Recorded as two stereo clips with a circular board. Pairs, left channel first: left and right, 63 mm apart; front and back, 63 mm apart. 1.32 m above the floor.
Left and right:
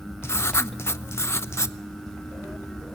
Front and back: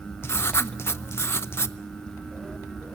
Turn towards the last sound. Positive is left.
turn(degrees=45)